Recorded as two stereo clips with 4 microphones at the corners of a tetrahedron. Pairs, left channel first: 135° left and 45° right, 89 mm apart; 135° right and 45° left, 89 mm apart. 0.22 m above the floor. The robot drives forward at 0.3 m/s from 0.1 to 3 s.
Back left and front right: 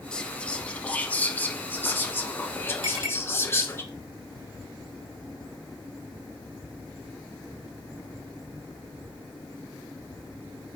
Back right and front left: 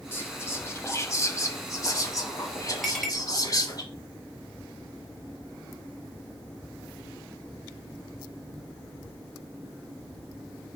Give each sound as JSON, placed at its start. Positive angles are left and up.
{"t": 0.1, "sound": "whispering", "azimuth_deg": -155, "distance_m": 1.0}
{"t": 2.8, "sound": "a clink", "azimuth_deg": -50, "distance_m": 3.5}